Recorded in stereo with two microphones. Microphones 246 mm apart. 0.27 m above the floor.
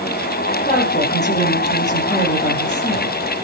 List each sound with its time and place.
0.7 s a woman speaking: 30° left (ahead or behind), 8 m